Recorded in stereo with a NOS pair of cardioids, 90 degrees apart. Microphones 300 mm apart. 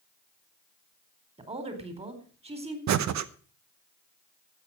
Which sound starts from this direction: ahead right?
Breathing, at 2.9 s.